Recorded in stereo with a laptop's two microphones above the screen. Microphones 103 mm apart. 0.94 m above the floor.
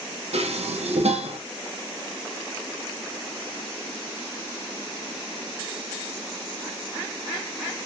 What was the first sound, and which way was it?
Dishes clattering, 85° right.